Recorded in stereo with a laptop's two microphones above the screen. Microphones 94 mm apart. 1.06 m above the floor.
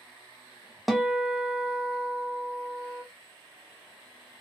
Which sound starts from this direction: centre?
A guitar, at 0.9 s.